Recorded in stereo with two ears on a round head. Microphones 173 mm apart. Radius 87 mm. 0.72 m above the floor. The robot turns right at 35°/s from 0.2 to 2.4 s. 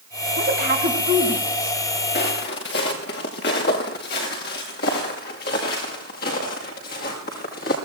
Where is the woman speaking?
50° right (ahead or behind), 4.5 m; by 1.8 s centre (ahead or behind), 4.5 m.